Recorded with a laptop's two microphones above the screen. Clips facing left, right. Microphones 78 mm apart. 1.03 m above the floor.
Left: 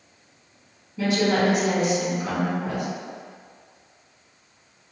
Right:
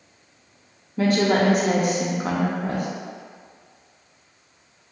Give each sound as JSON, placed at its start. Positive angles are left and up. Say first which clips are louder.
{"t": 1.0, "sound": "a woman speaking", "louder": "right 2 dB", "side_deg": -45, "distance_m": 0.6}